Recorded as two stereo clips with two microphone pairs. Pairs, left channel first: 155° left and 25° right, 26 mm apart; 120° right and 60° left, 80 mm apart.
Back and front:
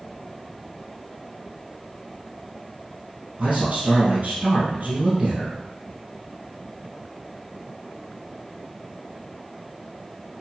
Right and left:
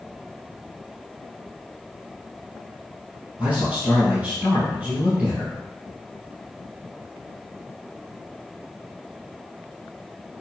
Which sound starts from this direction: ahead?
A man speaking, at 3.4 s.